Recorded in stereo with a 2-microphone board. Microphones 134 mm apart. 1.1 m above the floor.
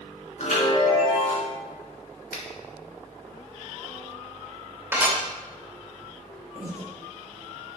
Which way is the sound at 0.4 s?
60° left (ahead or behind).